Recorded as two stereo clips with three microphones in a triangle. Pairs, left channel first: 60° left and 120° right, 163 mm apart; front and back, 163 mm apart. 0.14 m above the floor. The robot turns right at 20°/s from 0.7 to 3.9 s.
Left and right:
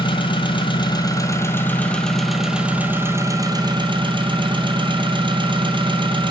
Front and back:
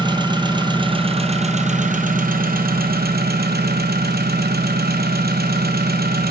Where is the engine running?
120° left, 1.2 m; by 6.3 s straight behind, 1.2 m.